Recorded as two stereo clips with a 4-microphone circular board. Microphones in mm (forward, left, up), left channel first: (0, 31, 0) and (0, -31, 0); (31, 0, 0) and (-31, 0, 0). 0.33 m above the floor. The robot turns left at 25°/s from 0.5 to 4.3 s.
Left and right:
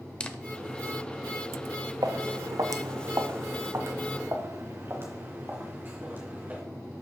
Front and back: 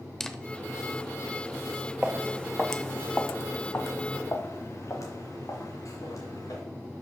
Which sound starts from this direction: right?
Footsteps, at 2.0 s.